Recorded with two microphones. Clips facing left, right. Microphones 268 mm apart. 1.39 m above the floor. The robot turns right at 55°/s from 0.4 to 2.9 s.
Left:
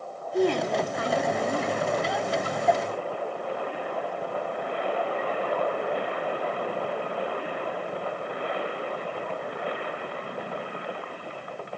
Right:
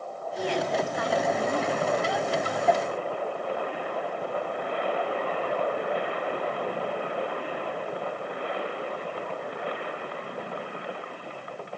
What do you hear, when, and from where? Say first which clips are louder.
0.3 s a woman speaking: left 5 dB; 115° left, 0.8 m; by 1.9 s 165° right, 0.8 m